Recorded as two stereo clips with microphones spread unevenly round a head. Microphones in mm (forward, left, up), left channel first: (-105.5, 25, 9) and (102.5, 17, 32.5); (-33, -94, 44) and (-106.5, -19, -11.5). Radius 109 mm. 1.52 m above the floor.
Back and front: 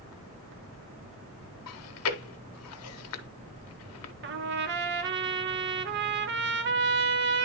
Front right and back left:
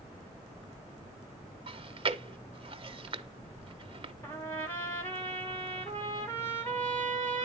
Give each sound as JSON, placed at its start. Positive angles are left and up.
{"t": 1.7, "sound": "chewing", "azimuth_deg": 170, "distance_m": 1.0}
{"t": 4.2, "sound": "a trumpet", "azimuth_deg": 35, "distance_m": 1.0}